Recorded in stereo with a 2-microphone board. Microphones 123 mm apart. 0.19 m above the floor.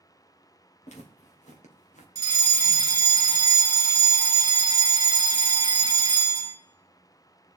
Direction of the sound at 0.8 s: 70° left (ahead or behind).